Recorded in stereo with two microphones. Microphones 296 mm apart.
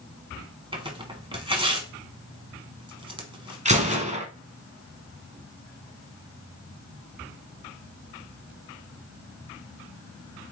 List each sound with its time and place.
0.7 s tearing paper: 15° right (ahead or behind), 0.9 m
3.6 s a gunshot: 25° right (ahead or behind), 1.0 m